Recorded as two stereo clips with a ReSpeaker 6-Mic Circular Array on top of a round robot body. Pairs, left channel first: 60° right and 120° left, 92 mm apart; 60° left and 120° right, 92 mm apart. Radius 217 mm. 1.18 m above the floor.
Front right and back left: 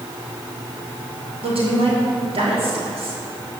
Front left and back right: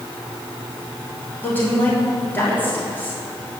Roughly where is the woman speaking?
Behind left.